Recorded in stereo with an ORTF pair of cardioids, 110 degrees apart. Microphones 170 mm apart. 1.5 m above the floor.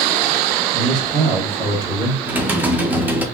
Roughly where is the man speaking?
Right.